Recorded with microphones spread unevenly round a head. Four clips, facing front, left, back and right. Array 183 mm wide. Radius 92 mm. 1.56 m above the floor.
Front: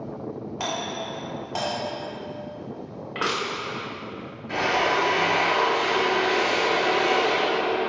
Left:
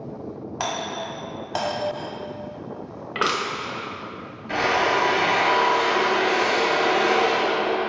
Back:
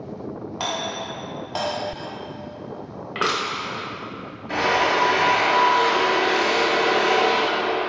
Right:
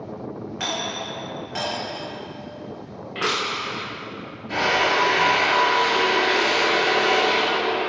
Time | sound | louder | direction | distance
0.6 | a doorbell | left 2 dB, back 2 dB | 115° left | 1.0 m
3.1 | crushing | left 2 dB, back 3 dB | 135° left | 0.8 m
4.5 | a drill | even, back 3 dB | 145° left | 1.3 m